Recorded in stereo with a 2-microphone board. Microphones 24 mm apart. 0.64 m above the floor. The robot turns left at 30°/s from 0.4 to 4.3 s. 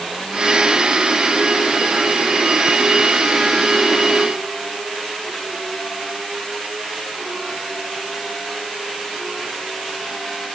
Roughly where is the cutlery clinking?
I don't hear cutlery clinking.